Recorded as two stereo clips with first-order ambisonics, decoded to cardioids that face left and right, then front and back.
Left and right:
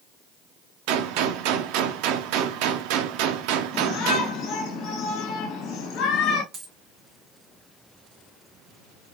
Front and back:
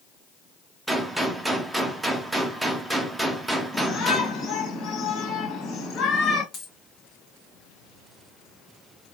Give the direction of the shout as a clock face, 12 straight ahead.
10 o'clock.